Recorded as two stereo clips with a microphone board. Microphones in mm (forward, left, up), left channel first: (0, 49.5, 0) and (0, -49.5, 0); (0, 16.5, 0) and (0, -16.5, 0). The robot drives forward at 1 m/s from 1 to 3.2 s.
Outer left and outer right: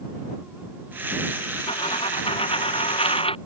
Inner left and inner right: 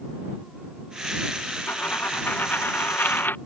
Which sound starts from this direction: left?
A dropped coin, at 1.7 s.